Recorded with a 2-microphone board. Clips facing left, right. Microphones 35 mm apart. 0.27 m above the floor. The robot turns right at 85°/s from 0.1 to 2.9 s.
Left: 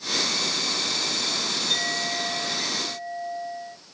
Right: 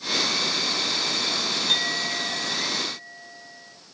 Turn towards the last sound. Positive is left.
turn(degrees=15)